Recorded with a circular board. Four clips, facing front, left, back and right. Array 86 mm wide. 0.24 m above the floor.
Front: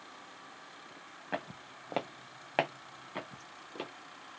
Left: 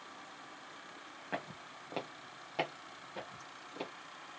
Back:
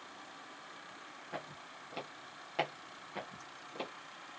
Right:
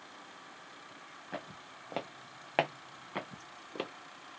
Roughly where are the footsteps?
Ahead left.